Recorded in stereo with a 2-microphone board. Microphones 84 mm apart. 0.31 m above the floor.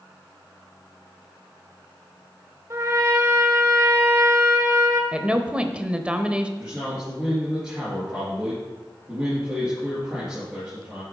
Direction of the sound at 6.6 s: 10° right (ahead or behind).